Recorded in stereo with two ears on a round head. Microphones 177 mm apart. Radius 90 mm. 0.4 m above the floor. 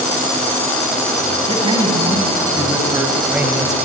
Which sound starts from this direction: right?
A man speaking, at 1.5 s.